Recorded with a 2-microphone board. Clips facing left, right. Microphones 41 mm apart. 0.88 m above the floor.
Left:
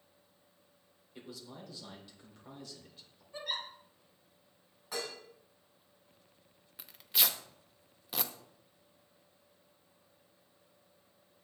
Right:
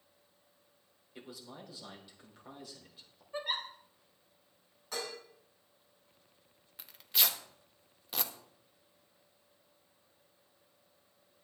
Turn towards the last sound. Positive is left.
turn(degrees=0)  # may be behind; listen again after turning